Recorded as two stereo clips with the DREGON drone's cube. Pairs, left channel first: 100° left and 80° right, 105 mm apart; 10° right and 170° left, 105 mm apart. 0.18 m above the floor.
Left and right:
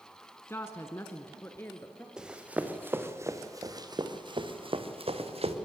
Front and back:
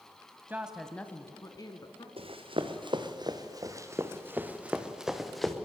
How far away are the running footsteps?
About 2 m.